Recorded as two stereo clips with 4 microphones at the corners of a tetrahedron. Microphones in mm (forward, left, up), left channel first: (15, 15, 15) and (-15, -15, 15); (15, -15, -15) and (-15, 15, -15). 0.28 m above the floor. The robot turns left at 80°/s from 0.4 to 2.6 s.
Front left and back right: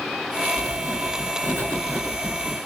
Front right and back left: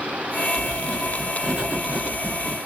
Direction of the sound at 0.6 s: 75° right.